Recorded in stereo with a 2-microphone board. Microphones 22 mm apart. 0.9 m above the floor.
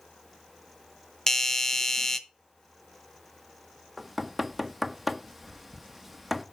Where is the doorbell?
25° left (ahead or behind), 0.9 m.